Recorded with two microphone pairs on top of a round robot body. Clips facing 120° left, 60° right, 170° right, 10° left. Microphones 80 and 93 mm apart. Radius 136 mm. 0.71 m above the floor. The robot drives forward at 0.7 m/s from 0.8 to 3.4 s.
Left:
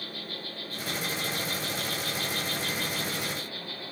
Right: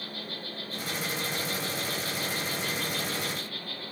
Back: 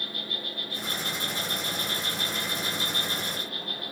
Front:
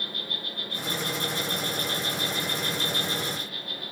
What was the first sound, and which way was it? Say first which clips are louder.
An insect: even, even; 5° right.